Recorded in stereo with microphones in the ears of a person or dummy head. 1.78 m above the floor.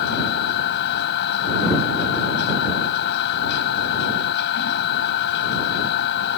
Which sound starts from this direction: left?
A machine running, at 0.0 s.